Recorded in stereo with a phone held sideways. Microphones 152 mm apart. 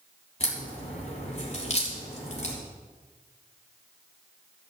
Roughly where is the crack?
Left.